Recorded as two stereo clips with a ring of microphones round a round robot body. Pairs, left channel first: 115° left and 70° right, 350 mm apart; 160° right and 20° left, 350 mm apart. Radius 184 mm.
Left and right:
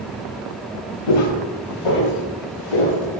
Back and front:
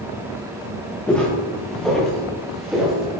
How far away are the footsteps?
About 4.5 m.